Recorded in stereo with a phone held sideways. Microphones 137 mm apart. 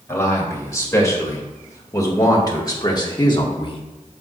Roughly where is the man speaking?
Left.